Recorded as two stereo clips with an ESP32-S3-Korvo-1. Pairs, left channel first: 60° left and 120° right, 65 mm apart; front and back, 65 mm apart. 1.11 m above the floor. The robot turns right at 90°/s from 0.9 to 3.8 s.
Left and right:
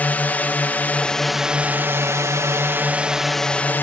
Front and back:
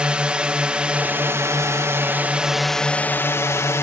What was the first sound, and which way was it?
A drone, 115° left.